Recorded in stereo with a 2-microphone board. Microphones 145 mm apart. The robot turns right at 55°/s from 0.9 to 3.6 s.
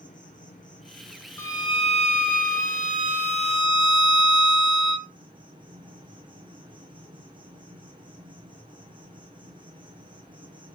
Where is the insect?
65° left, 1.7 m; by 10.8 s 145° right, 1.7 m.